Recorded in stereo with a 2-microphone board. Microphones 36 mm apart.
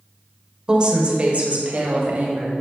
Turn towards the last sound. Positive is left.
turn(degrees=-55)  # may be behind; listen again after turning